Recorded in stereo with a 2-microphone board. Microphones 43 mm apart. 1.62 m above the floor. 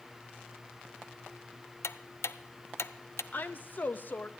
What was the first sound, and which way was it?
Ticking, 80° left.